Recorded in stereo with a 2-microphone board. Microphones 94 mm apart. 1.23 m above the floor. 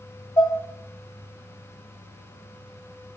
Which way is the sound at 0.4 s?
45° left (ahead or behind).